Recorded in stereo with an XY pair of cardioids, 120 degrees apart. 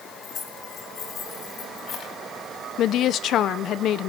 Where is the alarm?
No alarm in this recording.